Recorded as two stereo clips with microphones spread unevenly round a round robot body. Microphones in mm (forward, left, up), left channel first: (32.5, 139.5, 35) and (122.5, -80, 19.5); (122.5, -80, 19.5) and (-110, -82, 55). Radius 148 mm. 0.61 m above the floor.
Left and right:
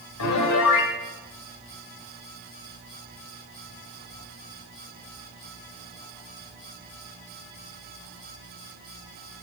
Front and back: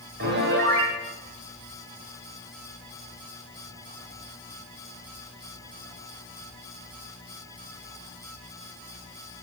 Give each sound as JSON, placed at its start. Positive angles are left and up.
{"t": 0.2, "sound": "a piano", "azimuth_deg": 125, "distance_m": 1.8}